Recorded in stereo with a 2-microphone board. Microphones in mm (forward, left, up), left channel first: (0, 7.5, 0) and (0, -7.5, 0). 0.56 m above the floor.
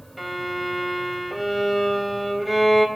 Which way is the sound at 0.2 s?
5° right (ahead or behind).